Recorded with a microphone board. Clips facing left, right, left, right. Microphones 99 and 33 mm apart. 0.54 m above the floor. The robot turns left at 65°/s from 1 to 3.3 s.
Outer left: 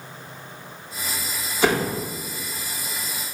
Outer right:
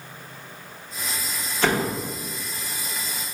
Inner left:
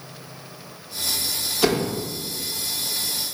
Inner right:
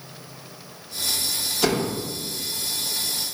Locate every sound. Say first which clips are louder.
1.6 s a door slam: outer left 2 dB, inner left 2 dB; 10° left (ahead or behind), 0.8 m; by 2.0 s centre (ahead or behind), 0.8 m